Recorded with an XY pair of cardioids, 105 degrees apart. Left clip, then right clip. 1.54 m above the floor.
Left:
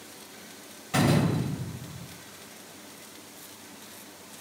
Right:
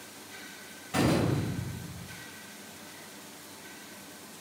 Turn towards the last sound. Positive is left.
turn(degrees=50)